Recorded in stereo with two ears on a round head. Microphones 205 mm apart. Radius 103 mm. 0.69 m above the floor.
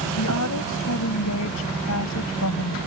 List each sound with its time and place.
0.2 s a woman speaking: 80° left